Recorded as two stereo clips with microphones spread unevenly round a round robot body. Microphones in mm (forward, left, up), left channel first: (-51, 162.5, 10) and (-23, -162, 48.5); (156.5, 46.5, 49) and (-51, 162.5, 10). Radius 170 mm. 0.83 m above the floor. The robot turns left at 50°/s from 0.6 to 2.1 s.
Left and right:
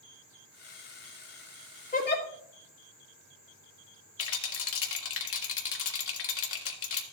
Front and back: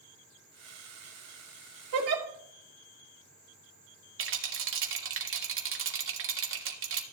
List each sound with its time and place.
1.9 s a giggle: 160° left, 2.0 m; by 2.2 s 150° left, 2.0 m
4.2 s a rattle: 135° left, 1.4 m